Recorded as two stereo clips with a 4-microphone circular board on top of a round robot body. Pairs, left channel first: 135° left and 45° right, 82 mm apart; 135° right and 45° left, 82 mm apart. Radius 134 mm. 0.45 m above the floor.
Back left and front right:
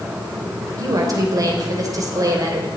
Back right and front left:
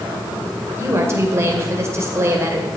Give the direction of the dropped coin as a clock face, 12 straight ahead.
I don't hear a dropped coin.